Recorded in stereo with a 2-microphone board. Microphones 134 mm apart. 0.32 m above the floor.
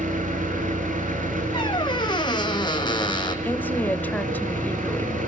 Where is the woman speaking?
15° left (ahead or behind), 1.3 m.